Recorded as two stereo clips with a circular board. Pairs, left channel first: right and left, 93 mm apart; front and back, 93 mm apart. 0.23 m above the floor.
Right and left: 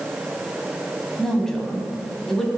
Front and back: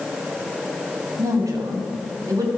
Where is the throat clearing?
I don't hear throat clearing.